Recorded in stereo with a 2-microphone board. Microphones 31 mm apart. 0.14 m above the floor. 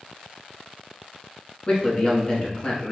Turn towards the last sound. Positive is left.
turn(degrees=30)  # may be behind; listen again after turning